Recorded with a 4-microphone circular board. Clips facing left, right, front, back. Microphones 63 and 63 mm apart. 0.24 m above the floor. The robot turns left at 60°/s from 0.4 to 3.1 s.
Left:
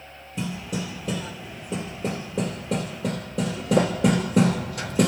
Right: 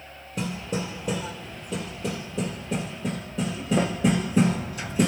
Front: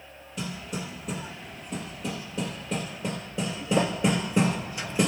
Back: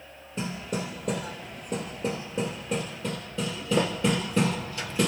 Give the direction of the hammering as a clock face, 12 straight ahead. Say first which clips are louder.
Right 1 dB, back 3 dB; 4 o'clock.